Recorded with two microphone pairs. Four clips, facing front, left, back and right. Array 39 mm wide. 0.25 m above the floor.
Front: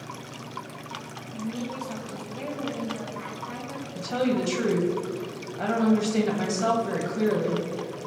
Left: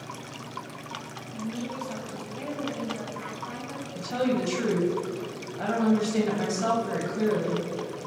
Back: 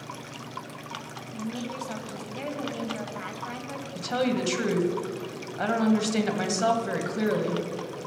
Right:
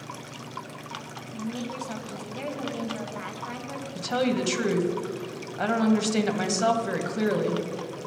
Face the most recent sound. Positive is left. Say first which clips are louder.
# right 1 dB, front 1 dB
turn(degrees=-125)